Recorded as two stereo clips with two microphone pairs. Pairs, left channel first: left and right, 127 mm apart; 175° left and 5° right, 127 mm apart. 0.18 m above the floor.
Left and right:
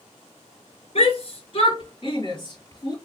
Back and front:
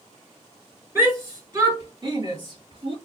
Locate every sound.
0.9 s a shout: 65° left, 3 m; by 3.0 s 35° left, 3.5 m